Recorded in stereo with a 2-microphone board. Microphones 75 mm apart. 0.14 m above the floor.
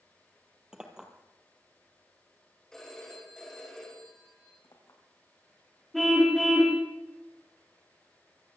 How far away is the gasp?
No gasp in this recording.